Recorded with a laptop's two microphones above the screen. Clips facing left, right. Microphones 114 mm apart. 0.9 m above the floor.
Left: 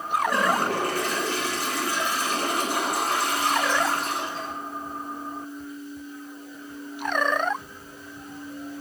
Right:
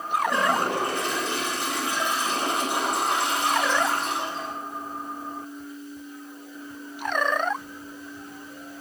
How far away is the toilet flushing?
About 2 m.